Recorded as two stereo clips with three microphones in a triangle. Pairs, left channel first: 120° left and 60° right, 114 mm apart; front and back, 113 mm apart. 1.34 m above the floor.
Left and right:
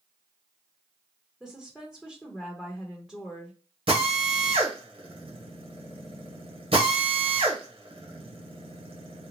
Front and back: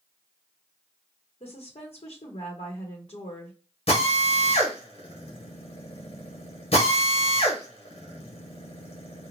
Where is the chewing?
No chewing in this recording.